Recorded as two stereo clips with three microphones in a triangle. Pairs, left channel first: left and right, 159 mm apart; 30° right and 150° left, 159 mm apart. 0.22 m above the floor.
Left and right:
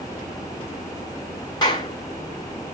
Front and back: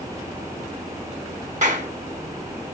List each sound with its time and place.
1.6 s a clap: 145° left, 1.9 m